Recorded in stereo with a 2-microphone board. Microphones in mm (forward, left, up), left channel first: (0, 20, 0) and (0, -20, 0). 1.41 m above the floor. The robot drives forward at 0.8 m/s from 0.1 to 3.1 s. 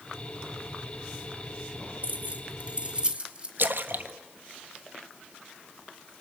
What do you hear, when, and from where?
2.0 s keys jangling: 40° right (ahead or behind), 1.4 m; by 3.5 s 25° right (ahead or behind), 2 m
3.6 s a splash: 60° right (ahead or behind), 1.3 m